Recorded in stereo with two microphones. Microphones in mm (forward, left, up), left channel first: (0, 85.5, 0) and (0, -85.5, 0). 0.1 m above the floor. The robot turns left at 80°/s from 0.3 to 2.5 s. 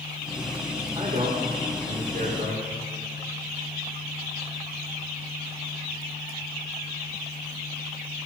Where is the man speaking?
20° right, 6 m; by 2.6 s 145° right, 6 m.